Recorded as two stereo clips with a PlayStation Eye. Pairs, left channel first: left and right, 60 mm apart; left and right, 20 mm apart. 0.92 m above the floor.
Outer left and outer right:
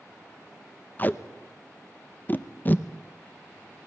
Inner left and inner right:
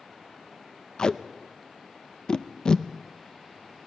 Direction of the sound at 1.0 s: 35° left (ahead or behind).